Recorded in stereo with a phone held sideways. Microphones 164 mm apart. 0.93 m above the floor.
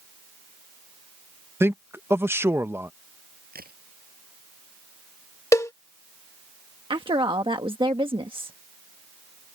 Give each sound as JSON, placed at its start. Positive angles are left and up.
{"t": 1.6, "sound": "a man speaking", "side_deg": -15}
{"t": 3.5, "sound": "a crack", "side_deg": -75}
{"t": 5.5, "sound": "a cowbell", "side_deg": 20}
{"t": 6.9, "sound": "a woman speaking", "side_deg": -35}